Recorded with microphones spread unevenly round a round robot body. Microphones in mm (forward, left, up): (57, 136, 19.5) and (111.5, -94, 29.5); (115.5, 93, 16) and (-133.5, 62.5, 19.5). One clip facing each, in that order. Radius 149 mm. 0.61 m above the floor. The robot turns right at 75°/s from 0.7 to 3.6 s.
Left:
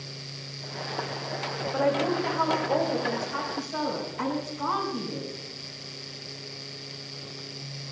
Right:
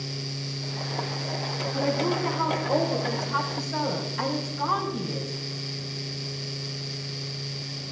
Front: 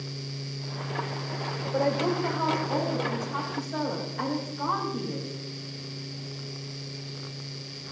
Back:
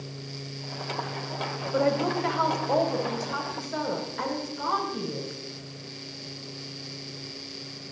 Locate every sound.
1.7 s a woman speaking: 105° left, 4 m; by 5.3 s 115° right, 4 m